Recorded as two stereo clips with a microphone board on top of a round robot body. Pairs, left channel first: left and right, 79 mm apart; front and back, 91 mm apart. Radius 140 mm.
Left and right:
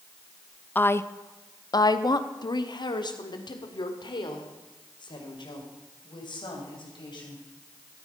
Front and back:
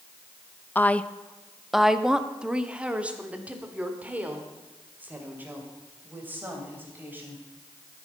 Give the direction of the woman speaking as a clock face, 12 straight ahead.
10 o'clock.